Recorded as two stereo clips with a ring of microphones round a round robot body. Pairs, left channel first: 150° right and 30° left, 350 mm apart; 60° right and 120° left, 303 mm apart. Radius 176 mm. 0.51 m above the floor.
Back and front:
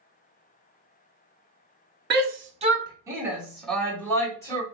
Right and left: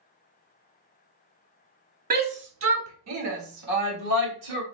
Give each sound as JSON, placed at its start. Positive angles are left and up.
{"t": 2.1, "sound": "a shout", "azimuth_deg": 75, "distance_m": 1.0}